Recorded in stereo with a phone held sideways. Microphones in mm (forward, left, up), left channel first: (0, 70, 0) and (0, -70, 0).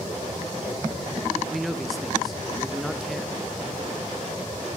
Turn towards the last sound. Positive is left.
turn(degrees=0)  # may be behind; listen again after turning